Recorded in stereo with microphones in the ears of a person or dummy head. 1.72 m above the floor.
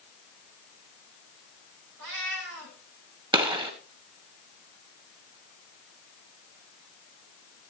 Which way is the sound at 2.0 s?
70° right (ahead or behind).